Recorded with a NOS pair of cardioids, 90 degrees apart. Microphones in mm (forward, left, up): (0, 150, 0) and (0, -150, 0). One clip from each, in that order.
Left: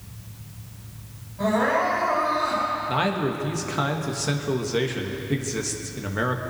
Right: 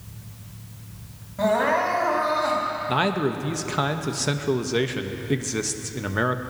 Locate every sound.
1.4 s crying: 65° right, 4.5 m
2.9 s a man speaking: 25° right, 1.3 m